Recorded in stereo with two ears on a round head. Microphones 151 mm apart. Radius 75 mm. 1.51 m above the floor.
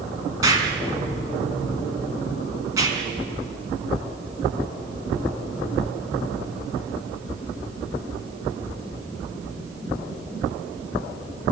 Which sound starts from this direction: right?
An explosion, at 0.4 s.